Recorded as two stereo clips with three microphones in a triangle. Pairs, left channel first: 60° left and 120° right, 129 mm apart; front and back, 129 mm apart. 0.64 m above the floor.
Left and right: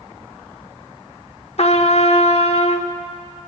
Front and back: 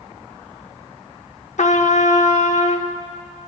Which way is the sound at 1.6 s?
25° left.